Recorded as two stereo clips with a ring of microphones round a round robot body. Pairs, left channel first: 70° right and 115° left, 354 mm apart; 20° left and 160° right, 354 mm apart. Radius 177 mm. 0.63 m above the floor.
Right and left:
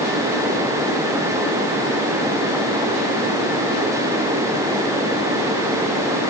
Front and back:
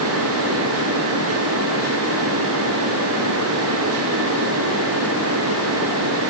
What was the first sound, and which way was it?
Only background noise.